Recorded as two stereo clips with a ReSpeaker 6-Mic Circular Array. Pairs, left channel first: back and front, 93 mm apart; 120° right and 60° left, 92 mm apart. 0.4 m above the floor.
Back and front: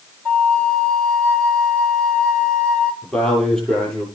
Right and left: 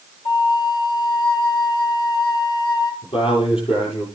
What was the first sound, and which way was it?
A flute, 105° right.